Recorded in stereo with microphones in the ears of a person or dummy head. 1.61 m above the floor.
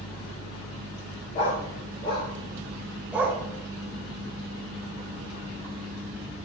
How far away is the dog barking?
About 1.5 m.